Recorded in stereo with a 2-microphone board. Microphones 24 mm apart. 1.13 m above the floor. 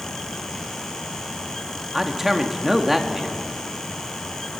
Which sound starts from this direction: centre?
A man speaking, at 1.9 s.